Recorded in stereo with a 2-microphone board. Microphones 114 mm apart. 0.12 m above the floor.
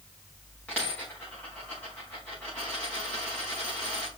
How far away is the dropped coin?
About 6.5 m.